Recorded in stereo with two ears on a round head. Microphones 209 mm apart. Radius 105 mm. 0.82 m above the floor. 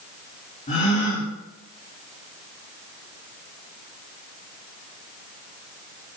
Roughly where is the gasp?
Left.